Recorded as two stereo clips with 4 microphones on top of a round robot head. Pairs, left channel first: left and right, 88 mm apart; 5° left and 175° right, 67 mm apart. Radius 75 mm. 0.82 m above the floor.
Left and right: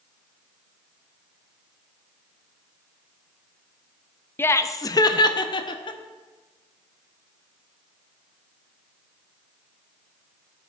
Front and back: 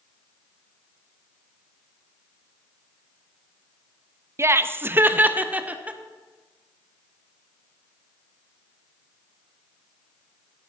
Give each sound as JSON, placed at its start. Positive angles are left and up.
{"t": 4.4, "sound": "laughter", "azimuth_deg": 150, "distance_m": 0.5}